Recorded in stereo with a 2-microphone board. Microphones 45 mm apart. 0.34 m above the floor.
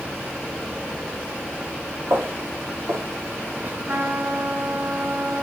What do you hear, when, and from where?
2.1 s footsteps: 85° right, 3.5 m; by 3.7 s 40° right (ahead or behind), 2.5 m
3.9 s a trumpet: 40° right (ahead or behind), 3.5 m